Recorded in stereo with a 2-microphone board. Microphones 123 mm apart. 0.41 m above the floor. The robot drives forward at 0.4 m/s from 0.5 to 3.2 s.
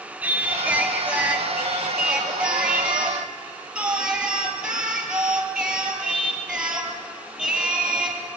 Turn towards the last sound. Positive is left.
turn(degrees=-10)  # may be behind; listen again after turning